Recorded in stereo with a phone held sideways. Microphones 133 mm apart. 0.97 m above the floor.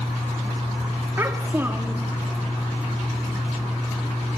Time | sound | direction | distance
1.2 | a child speaking | 20° right (ahead or behind) | 1.2 m